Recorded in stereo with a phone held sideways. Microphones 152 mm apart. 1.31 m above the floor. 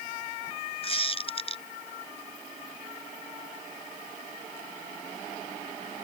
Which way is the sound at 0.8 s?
40° left (ahead or behind).